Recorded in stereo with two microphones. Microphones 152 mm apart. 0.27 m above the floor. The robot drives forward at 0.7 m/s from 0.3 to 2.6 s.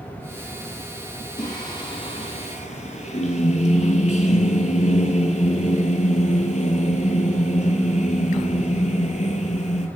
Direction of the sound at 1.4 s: 25° left (ahead or behind).